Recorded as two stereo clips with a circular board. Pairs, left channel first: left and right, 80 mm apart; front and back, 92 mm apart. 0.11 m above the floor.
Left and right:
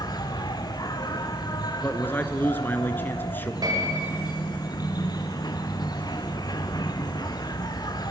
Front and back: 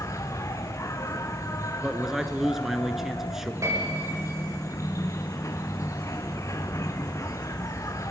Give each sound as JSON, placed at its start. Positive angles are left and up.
{"t": 0.0, "sound": "an insect", "azimuth_deg": 55, "distance_m": 1.4}
{"t": 1.8, "sound": "a man speaking", "azimuth_deg": 100, "distance_m": 1.2}
{"t": 3.6, "sound": "a piano", "azimuth_deg": -125, "distance_m": 9.0}